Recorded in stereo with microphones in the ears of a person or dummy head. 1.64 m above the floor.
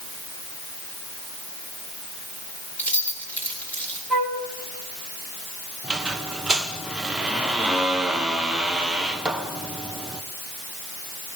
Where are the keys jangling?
10° left (ahead or behind), 4 m.